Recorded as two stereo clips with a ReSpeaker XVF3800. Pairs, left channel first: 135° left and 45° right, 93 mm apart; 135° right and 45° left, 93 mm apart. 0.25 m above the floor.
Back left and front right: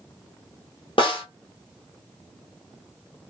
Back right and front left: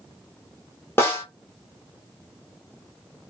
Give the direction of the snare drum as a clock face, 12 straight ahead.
7 o'clock.